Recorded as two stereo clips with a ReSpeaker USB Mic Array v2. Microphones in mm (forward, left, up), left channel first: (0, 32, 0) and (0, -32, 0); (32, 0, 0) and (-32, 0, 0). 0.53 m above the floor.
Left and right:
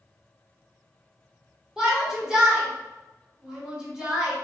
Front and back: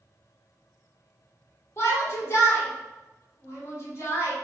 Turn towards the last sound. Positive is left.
turn(degrees=-15)